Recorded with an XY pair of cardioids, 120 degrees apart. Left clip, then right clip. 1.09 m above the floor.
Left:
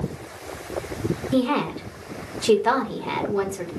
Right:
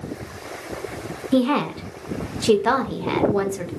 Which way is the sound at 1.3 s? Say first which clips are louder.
Right 3 dB; 20° right.